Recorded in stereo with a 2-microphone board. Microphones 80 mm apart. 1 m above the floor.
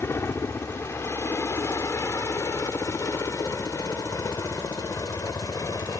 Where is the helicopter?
30° left (ahead or behind); by 6.0 s 45° left (ahead or behind).